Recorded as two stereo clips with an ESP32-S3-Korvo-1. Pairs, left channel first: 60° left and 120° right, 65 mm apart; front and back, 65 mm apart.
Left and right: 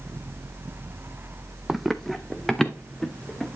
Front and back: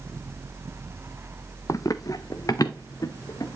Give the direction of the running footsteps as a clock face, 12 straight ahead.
1 o'clock.